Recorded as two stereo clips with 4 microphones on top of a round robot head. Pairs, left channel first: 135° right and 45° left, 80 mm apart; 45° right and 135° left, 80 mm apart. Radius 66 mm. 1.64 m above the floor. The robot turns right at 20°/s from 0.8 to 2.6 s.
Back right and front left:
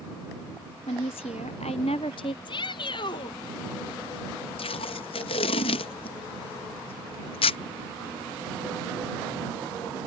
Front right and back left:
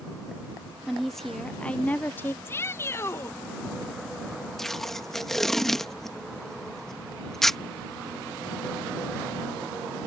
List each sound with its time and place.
0.9 s a woman speaking: 140° right; by 2.4 s 110° right
2.5 s a shout: 110° right; by 3.4 s 105° right
4.6 s tape being pulled: 130° right